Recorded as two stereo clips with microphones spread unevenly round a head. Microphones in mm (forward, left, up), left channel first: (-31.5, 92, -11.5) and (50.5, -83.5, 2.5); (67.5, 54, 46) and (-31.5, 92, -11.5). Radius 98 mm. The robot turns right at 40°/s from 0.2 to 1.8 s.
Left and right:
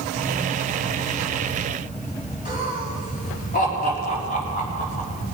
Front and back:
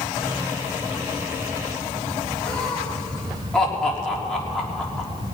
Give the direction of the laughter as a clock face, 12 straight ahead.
10 o'clock.